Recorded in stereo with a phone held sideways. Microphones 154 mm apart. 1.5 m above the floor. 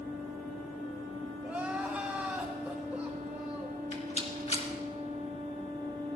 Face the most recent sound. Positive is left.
turn(degrees=45)  # may be behind; listen again after turning